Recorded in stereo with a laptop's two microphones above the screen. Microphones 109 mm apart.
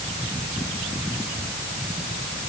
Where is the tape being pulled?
No tape being pulled in this recording.